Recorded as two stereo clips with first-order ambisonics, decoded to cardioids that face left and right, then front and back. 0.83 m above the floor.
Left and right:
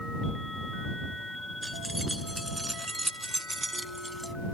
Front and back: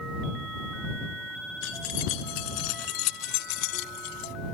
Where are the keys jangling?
5° right.